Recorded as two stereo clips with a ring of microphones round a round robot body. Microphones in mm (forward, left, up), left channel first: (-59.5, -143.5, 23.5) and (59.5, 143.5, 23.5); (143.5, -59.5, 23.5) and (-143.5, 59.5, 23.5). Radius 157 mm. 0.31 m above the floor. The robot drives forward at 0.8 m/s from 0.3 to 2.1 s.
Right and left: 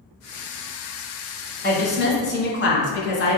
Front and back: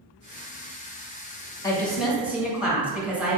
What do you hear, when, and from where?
1.6 s a woman speaking: 90° right, 1.1 m; by 3.4 s 120° right, 1.2 m